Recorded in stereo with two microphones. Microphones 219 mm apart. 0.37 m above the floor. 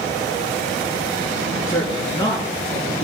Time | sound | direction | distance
1.7 | a woman speaking | 15° left (ahead or behind) | 4.5 m